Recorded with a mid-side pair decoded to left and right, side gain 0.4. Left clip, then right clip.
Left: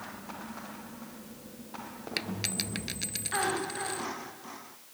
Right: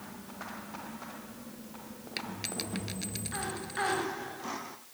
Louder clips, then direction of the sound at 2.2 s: Left 3 dB; 35° left.